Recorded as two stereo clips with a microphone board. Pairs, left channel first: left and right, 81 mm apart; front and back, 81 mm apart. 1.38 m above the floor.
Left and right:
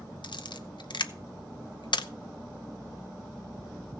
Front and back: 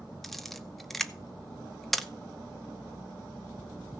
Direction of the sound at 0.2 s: 90° left.